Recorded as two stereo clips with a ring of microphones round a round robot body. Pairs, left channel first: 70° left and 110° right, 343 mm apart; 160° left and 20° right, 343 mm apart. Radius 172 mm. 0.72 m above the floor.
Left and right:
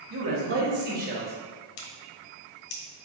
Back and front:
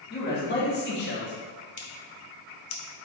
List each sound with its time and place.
0.1 s a man speaking: 150° right, 1.6 m; by 1.4 s 175° right, 1.2 m
1.8 s scissors: 100° left, 1.0 m